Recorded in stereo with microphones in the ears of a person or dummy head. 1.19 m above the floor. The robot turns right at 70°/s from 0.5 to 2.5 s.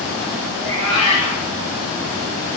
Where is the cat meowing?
Straight ahead, 1.4 m; by 1.5 s 65° left, 1.4 m.